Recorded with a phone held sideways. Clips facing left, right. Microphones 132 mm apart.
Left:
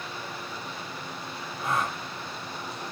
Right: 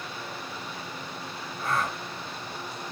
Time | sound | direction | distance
1.6 | a gasp | 20° left (ahead or behind) | 1.1 m